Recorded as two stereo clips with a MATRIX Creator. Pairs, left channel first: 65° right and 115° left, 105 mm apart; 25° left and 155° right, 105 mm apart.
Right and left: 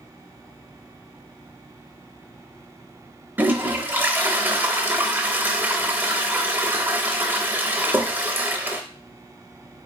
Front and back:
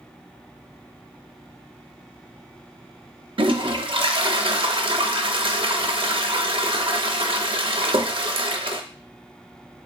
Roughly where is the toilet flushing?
Behind.